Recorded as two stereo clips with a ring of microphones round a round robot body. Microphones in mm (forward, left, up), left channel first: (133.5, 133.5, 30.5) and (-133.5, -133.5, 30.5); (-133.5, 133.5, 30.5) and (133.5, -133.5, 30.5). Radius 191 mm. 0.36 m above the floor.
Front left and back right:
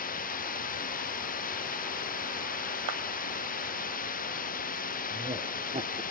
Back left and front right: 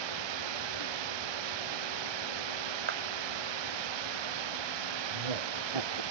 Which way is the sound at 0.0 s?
25° right.